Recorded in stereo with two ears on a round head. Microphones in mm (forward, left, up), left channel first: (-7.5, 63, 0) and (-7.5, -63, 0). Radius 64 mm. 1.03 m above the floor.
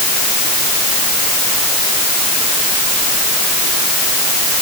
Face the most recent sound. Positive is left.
No sound to turn to.